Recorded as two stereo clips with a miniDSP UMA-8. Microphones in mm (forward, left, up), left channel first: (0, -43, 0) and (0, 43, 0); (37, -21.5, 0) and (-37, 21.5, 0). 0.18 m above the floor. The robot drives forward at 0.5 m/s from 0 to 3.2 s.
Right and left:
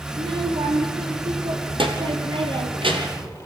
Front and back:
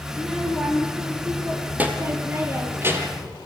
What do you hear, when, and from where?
0.1 s a child speaking: 65° left, 3.5 m; by 3.3 s 90° left, 3.5 m